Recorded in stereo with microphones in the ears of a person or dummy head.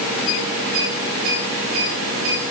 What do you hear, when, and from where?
Only background noise.